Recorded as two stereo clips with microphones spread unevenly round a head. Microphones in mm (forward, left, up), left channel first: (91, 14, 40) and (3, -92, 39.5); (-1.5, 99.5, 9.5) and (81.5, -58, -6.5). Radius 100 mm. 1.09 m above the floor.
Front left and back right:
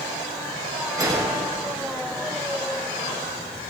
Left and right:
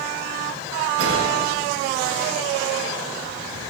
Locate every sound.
1.0 s a gunshot: 65° right, 3 m